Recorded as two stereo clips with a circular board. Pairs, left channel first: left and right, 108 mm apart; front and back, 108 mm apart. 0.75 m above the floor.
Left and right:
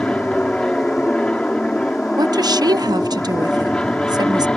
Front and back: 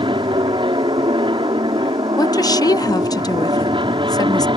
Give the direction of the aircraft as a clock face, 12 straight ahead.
6 o'clock.